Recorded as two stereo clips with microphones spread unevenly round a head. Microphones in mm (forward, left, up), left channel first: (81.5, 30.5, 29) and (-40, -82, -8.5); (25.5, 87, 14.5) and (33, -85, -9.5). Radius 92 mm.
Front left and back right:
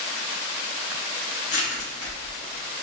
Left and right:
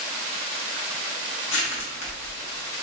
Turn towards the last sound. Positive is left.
turn(degrees=90)